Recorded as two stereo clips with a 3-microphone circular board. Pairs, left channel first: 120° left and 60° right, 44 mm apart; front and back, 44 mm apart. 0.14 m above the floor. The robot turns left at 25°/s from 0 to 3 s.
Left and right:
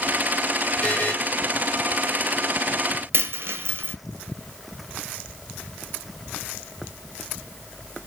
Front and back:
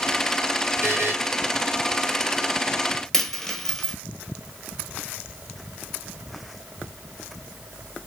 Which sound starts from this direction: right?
A dropped coin, at 3.1 s.